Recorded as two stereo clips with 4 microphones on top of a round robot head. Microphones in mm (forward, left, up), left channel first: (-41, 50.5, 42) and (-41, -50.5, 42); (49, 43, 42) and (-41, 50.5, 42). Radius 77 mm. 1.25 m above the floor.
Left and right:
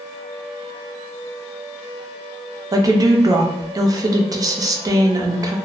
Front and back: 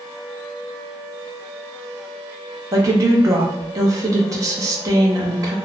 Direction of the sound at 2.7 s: 140° right.